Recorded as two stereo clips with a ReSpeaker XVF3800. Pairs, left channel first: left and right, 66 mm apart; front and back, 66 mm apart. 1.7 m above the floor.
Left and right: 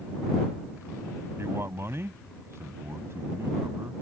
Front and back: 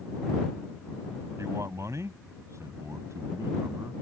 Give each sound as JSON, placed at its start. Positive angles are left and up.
{"t": 1.4, "sound": "a man speaking", "azimuth_deg": -140}